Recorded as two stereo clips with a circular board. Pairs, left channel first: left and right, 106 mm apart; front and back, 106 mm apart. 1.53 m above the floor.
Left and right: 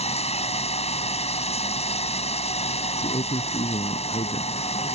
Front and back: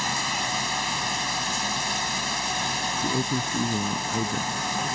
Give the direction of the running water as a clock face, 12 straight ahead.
9 o'clock.